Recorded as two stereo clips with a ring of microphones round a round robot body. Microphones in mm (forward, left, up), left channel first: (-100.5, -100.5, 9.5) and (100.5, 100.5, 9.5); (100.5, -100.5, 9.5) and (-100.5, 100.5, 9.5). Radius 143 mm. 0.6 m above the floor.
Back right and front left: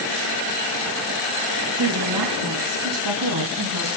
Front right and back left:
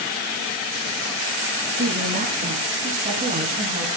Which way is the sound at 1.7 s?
70° left.